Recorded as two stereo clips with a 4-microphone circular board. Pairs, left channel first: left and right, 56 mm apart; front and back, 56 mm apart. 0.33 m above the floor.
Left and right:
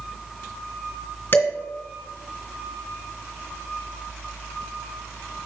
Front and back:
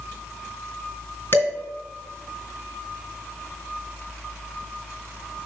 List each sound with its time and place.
1.3 s dishes clattering: 45° left, 2.5 m